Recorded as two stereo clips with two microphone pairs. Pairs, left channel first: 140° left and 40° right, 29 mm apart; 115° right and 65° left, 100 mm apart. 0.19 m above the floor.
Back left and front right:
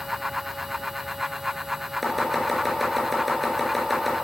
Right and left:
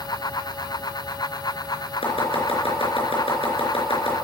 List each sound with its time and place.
2.0 s chopping: 130° right, 3.5 m